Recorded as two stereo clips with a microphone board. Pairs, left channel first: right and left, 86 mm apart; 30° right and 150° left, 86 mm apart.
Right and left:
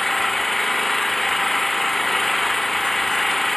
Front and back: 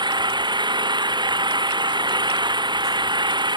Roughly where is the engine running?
Behind.